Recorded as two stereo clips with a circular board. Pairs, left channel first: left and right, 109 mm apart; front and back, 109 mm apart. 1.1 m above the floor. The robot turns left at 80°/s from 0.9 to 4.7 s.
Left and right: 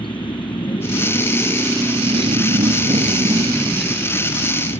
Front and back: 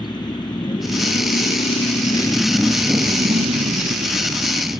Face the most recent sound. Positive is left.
turn(degrees=105)